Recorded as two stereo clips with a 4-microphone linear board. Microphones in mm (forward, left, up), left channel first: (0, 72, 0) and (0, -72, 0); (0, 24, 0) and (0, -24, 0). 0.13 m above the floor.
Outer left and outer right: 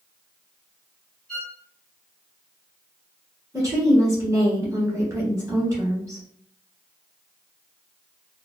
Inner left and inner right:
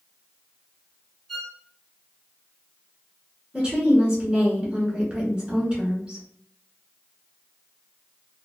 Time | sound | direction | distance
1.3 | a violin | 5° left (ahead or behind) | 1.3 m
3.5 | a woman speaking | 20° right (ahead or behind) | 1.2 m